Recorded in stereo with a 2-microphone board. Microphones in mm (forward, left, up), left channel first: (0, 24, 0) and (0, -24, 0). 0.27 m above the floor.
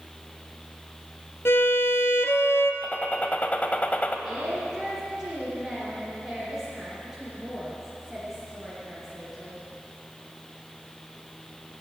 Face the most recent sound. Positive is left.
turn(degrees=-10)  # may be behind; listen again after turning